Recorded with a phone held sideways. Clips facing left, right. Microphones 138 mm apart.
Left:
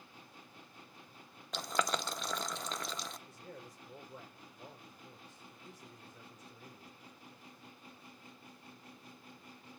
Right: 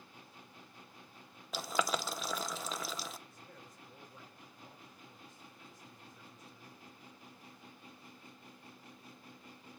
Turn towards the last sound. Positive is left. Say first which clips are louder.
# left 5 dB
turn(degrees=90)